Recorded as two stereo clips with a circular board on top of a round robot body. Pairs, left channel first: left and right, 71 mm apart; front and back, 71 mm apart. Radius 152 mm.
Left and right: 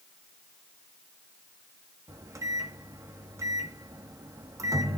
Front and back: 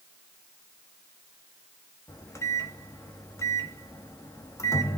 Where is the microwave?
50° right, 1.1 m.